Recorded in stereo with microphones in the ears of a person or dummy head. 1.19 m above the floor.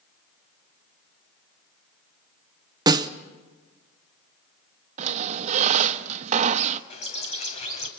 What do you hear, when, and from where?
2.9 s a snare drum: 20° right (ahead or behind), 0.6 m
5.0 s a squeak: 40° right (ahead or behind), 0.7 m
6.9 s a bird: 40° left (ahead or behind), 2.5 m